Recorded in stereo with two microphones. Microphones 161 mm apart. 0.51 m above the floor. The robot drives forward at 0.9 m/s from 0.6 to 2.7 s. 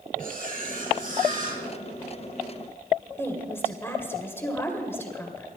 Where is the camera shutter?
60° right (ahead or behind), 6 m; by 1.6 s 55° right (ahead or behind), 6.5 m.